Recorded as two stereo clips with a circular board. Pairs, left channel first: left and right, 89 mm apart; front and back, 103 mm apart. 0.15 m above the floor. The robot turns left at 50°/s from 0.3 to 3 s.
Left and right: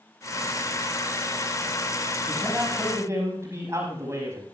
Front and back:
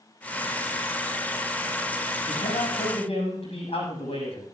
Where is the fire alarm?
I don't hear a fire alarm.